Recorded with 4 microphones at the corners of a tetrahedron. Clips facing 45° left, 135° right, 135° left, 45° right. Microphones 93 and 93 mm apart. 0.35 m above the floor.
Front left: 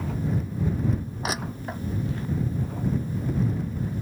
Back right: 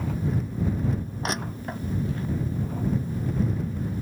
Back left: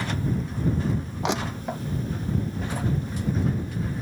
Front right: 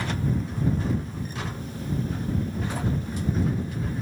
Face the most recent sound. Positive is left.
turn(degrees=130)